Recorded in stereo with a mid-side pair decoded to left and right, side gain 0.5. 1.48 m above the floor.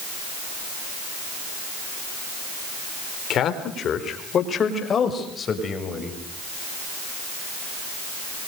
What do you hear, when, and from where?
3.3 s a man speaking: 60° left, 4 m; by 6.2 s 35° left, 7 m